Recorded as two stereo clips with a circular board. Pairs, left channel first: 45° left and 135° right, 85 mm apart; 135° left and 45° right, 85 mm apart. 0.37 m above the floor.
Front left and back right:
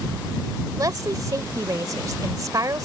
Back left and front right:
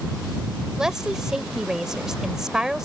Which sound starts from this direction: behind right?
A woman speaking, at 0.8 s.